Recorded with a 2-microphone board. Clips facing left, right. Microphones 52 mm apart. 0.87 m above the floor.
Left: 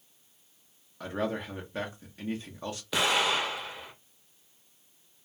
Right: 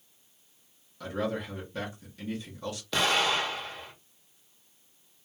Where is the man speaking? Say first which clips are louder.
Even; 30° left (ahead or behind), 0.9 m.